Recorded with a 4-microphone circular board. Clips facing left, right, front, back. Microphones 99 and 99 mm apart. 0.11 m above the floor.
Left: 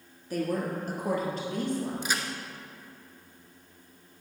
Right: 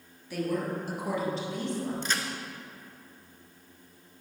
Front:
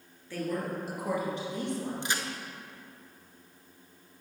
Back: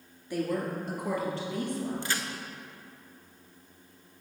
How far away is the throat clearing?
No throat clearing in this recording.